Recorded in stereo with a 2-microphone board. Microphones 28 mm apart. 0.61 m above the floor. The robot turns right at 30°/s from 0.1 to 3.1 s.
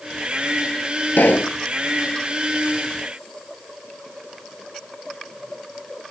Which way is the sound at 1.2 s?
85° left.